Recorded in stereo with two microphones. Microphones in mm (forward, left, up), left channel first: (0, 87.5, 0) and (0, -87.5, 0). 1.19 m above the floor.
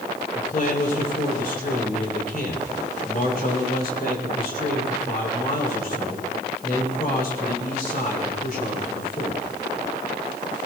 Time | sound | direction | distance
0.3 | a man speaking | 55° left (ahead or behind) | 3.5 m